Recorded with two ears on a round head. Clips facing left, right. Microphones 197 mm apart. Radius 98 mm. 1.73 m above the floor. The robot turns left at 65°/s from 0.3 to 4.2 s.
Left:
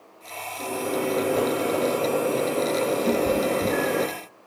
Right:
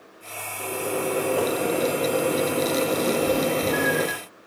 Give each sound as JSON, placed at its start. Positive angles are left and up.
{"t": 0.6, "sound": "a microwave", "azimuth_deg": 55, "distance_m": 4.0}
{"t": 3.1, "sound": "a cat meowing", "side_deg": 25, "distance_m": 1.1}